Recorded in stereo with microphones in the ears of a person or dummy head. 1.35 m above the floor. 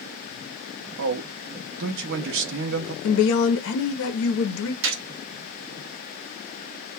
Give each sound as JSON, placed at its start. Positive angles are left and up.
{"t": 1.0, "sound": "a man speaking", "side_deg": -60, "distance_m": 0.5}
{"t": 3.0, "sound": "a woman speaking", "side_deg": 70, "distance_m": 0.7}
{"t": 4.8, "sound": "a gunshot", "side_deg": -60, "distance_m": 0.5}